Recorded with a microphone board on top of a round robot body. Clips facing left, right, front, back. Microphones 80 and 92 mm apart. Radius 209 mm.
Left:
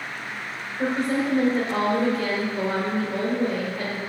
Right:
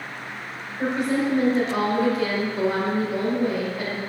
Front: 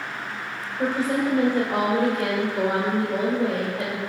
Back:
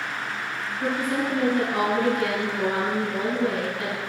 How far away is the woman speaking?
About 1.6 m.